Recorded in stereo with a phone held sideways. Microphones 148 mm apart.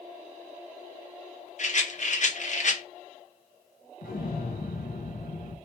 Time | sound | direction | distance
1.6 | a rattle | 55° left (ahead or behind) | 0.7 m
4.0 | an explosion | 85° left | 0.6 m